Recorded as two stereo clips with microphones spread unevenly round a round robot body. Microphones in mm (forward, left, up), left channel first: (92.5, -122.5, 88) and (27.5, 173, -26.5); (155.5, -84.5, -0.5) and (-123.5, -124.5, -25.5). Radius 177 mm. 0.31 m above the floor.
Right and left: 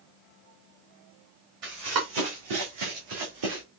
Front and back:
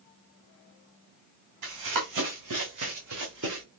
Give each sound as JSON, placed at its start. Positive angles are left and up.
{"t": 1.6, "sound": "running footsteps", "azimuth_deg": 165, "distance_m": 1.3}